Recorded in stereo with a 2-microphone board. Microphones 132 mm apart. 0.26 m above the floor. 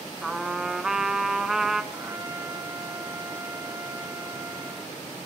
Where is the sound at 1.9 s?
20° right (ahead or behind), 0.6 m.